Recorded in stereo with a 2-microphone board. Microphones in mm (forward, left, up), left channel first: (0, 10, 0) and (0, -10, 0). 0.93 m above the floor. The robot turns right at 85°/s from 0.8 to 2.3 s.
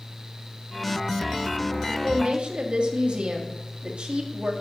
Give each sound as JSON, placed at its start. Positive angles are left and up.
{"t": 1.9, "sound": "a woman speaking", "azimuth_deg": -135, "distance_m": 1.2}